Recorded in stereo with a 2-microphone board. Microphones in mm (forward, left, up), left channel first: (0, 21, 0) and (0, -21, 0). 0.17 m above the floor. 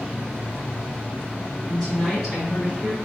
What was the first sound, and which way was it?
A woman speaking, 5° left (ahead or behind).